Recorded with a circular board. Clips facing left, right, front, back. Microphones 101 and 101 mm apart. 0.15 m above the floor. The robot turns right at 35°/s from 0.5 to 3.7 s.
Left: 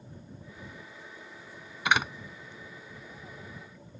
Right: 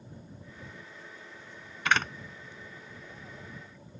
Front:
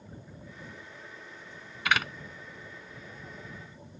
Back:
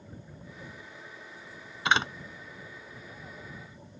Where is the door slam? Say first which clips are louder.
Left 1 dB, back 2 dB; 150° left; by 2.1 s 160° left.